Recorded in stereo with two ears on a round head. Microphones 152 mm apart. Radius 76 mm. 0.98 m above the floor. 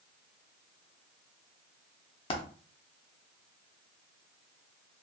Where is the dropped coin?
30° left (ahead or behind), 0.6 m.